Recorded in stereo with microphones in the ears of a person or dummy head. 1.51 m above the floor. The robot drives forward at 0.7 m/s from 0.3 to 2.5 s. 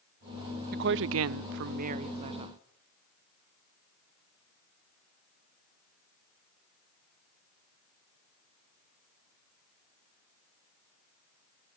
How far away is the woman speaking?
About 0.6 m.